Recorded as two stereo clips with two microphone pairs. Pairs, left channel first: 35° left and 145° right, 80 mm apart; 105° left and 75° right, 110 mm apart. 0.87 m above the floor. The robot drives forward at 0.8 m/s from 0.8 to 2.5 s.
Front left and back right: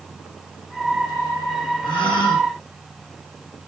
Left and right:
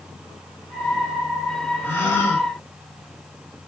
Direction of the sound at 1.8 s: 35° left.